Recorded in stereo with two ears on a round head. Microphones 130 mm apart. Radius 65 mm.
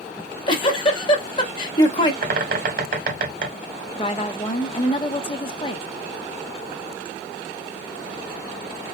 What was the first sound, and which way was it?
A giggle, 35° left (ahead or behind).